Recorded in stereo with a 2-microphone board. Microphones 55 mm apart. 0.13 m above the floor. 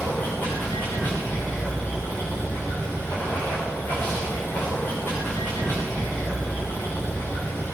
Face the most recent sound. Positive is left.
turn(degrees=35)  # may be behind; listen again after turning